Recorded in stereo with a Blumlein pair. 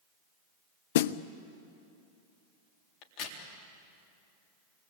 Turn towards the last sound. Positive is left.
turn(degrees=40)